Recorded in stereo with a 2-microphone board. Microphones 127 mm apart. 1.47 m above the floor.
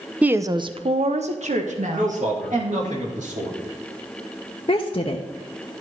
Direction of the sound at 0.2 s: 10° right (ahead or behind).